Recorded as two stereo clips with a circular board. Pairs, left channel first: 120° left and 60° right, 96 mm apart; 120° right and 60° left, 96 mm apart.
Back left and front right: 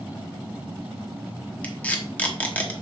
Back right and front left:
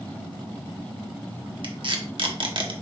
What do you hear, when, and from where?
1.6 s tape being pulled: 50° left, 1.0 m